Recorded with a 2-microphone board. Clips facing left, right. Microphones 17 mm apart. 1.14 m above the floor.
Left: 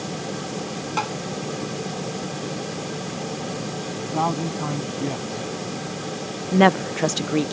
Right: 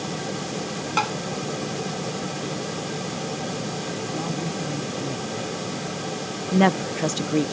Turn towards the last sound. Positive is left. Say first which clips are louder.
# left 3 dB
turn(degrees=15)  # may be behind; listen again after turning